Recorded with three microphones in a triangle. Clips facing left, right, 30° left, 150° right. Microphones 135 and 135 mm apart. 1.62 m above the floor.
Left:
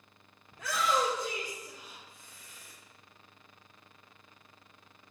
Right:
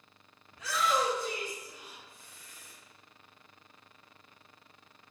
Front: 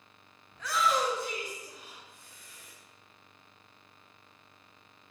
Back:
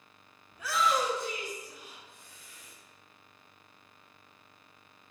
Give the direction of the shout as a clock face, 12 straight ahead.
7 o'clock.